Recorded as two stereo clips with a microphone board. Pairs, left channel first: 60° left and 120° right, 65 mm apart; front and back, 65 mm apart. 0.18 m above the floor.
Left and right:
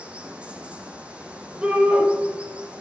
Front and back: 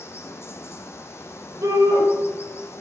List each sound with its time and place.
0.0 s running water: 50° right, 1.2 m
1.6 s a shout: 165° left, 4 m